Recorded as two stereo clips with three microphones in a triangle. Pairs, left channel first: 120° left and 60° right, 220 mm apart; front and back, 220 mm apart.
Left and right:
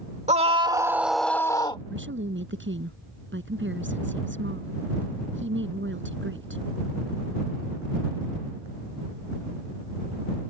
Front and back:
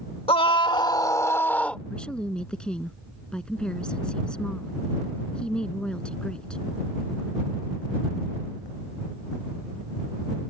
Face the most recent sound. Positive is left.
turn(degrees=-85)